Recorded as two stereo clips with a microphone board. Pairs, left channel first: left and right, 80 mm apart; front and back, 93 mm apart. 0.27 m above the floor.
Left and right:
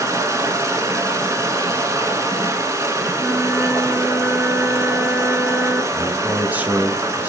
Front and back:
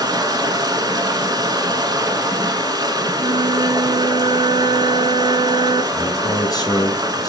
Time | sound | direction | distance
0.0 | running water | 135° right | 1.4 m
3.2 | a flute | 165° right | 0.9 m
5.9 | a man speaking | 25° right | 1.5 m